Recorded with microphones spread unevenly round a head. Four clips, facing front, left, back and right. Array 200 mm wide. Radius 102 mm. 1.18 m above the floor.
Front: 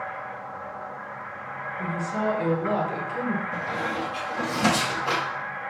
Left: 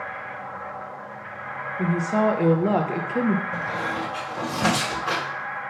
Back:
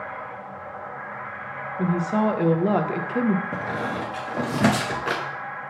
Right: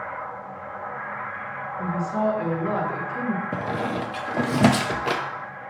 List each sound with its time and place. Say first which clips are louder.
1.8 s a woman speaking: left 3 dB, back 6 dB; 140° left, 0.7 m
3.5 s a squeak: right 1 dB, back 1 dB; 110° right, 0.7 m